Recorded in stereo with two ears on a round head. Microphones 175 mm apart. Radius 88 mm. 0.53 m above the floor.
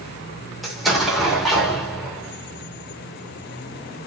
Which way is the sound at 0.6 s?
Centre (ahead or behind).